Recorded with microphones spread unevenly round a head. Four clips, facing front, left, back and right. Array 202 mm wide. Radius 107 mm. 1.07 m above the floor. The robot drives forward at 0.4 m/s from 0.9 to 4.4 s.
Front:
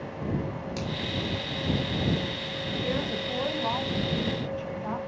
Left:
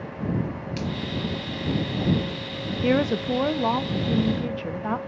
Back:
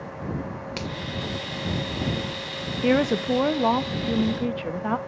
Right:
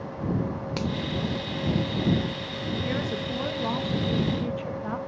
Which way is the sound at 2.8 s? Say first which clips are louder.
Left 12 dB, back 12 dB; 145° left.